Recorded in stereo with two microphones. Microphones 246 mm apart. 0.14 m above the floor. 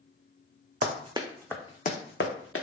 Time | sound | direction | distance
0.8 | running footsteps | 35° right (ahead or behind) | 0.6 m